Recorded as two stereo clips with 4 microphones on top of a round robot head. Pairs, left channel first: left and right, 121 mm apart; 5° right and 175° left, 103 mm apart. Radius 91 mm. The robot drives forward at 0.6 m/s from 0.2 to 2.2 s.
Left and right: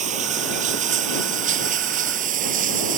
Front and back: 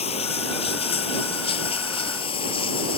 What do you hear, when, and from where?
0.0 s running water: 50° right; by 3.0 s 55° right